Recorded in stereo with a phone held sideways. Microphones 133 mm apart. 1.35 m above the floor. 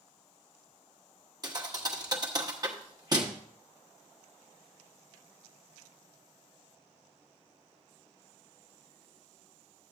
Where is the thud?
30° right (ahead or behind), 1.0 m.